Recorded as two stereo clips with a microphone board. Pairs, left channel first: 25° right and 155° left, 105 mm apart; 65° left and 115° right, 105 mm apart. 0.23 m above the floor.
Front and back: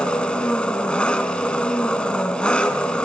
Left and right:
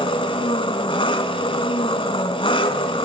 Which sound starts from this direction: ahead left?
An engine running, at 0.0 s.